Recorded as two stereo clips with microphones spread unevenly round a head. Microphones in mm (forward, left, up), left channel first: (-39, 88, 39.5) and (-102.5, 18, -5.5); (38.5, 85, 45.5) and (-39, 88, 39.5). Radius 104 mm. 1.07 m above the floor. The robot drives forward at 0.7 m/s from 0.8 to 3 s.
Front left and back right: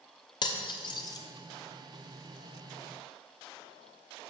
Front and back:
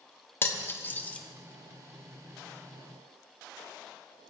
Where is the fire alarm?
I don't hear a fire alarm.